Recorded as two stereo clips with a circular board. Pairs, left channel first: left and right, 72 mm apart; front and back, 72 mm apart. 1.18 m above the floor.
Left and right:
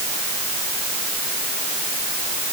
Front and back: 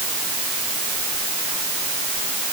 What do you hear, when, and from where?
Only background noise.